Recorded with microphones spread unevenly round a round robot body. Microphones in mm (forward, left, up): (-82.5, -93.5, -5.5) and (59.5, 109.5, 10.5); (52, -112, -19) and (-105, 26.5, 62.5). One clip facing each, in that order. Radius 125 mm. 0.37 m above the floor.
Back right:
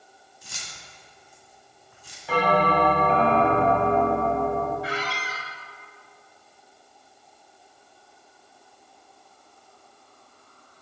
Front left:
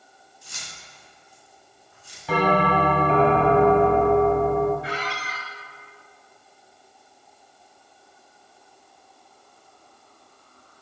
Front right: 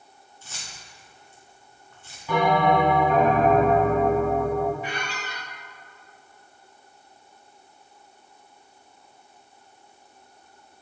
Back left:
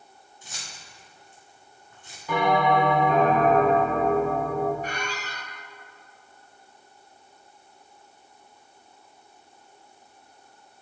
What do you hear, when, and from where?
0.4 s keys jangling: 140° right, 2 m
2.3 s a bell: 55° left, 2 m
4.8 s a squeak: 125° right, 1.3 m